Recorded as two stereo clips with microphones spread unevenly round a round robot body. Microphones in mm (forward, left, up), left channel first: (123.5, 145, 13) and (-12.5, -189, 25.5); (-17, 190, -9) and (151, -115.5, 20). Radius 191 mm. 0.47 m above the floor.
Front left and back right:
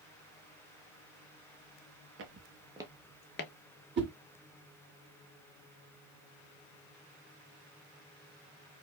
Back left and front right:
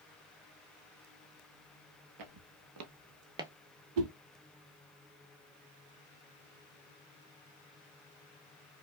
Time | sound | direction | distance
2.2 | footsteps | 60° right | 0.8 m
4.0 | a whoosh | 50° right | 1.2 m